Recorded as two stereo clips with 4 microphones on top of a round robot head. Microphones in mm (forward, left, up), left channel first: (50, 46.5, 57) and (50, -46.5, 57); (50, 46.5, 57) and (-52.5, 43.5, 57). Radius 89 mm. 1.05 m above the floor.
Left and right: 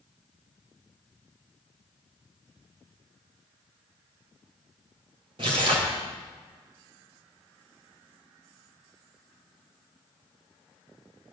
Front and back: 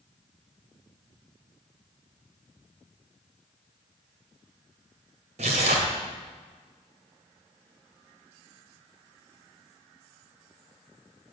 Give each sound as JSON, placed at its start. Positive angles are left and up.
{"t": 5.4, "sound": "tearing paper", "azimuth_deg": -140, "distance_m": 2.5}